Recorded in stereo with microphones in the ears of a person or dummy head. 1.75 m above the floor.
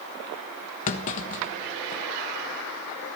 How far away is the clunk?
About 1.3 m.